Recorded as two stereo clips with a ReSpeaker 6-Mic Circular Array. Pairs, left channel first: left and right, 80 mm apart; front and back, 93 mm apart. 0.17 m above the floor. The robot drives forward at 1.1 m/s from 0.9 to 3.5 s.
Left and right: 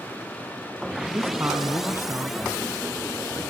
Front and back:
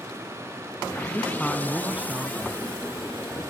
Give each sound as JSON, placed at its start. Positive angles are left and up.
{"t": 1.1, "sound": "a man speaking", "azimuth_deg": -55, "distance_m": 1.5}